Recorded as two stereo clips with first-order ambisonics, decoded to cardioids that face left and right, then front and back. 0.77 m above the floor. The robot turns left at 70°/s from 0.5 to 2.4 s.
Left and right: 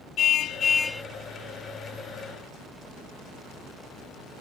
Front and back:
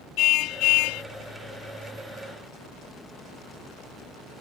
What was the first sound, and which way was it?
A car horn, 35° left.